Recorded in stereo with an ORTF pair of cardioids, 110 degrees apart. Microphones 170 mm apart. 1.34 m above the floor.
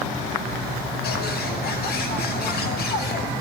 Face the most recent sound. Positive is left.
turn(degrees=65)